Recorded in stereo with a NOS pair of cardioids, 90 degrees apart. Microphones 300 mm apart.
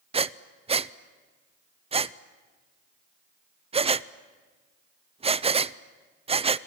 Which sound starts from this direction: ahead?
Breathing, at 0.1 s.